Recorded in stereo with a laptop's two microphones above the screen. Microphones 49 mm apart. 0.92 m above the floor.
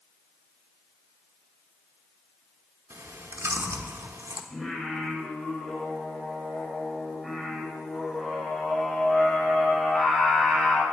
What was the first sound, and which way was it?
Chewing, 75° right (ahead or behind).